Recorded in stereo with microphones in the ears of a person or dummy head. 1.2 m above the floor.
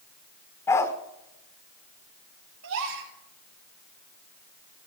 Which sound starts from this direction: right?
A gasp, at 2.6 s.